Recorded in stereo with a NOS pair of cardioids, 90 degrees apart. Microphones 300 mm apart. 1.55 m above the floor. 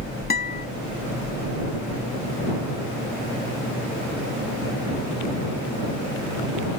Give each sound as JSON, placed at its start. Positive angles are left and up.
{"t": 0.3, "sound": "a guitar", "azimuth_deg": 30}